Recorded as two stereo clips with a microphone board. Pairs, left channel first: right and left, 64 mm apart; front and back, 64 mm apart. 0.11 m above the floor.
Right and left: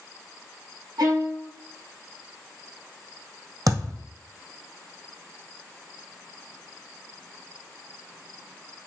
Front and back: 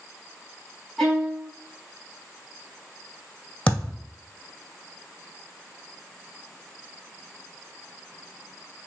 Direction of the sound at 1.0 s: 90° left.